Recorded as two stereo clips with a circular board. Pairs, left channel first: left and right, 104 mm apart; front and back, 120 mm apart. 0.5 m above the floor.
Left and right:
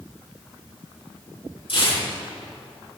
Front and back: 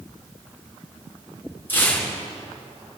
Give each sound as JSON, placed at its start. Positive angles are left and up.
{"t": 1.7, "sound": "tearing paper", "azimuth_deg": 70, "distance_m": 5.5}